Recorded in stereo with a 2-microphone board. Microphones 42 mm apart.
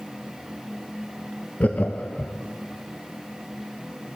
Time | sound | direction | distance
1.6 | laughter | 35° left (ahead or behind) | 0.5 m